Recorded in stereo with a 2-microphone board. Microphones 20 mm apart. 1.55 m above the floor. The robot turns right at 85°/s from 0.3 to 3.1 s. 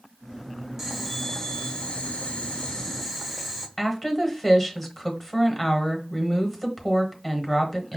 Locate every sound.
0.8 s boiling: 20° right, 0.8 m; by 3.7 s 175° left, 0.8 m
3.8 s a woman speaking: 15° left (ahead or behind), 1.1 m